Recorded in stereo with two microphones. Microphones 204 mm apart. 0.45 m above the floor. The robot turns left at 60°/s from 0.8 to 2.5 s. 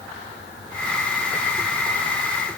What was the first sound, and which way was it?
Only background noise.